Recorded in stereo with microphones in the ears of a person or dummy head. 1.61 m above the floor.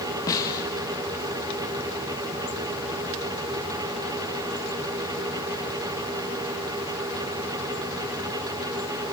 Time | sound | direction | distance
0.3 | a snare drum | 15° left (ahead or behind) | 1.3 m